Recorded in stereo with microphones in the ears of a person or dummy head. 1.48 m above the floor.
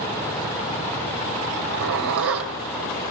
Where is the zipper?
75° right (ahead or behind), 3 m.